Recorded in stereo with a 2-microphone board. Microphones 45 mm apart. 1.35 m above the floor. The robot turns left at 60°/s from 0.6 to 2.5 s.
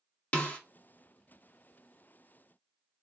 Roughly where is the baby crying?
No baby crying in this recording.